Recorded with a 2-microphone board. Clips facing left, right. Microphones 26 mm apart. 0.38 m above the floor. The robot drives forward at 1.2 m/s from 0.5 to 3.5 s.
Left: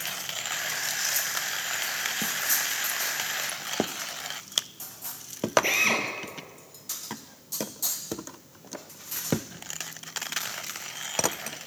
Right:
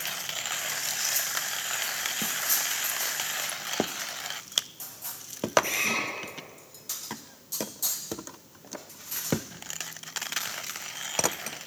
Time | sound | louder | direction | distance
5.6 | a drill | left 4 dB | 30° left (ahead or behind) | 6.5 m